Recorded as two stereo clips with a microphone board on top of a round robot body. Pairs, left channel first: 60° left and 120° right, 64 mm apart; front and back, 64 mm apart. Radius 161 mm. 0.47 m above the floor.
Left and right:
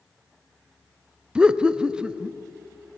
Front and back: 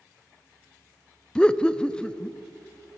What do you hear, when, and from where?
1.4 s laughter: 60° right, 0.7 m